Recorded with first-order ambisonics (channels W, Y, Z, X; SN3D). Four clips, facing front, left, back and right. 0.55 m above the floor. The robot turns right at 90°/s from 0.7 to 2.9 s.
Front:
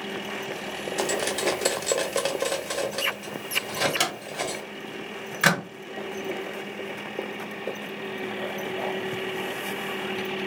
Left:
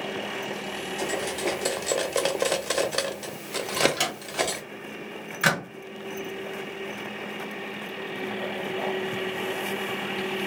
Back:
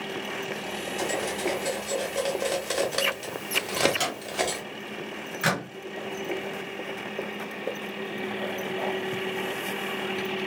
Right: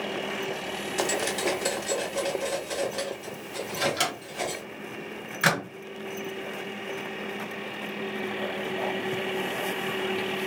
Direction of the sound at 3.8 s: Straight ahead.